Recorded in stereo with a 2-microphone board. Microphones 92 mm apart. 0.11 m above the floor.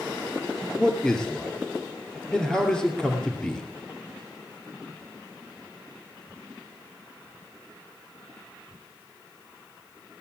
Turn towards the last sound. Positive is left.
turn(degrees=10)  # may be behind; listen again after turning